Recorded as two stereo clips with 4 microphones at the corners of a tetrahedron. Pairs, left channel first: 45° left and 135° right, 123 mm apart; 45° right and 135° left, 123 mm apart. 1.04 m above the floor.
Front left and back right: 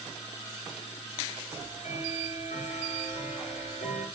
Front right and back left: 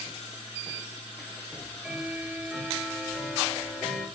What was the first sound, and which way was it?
Ticking, 50° left.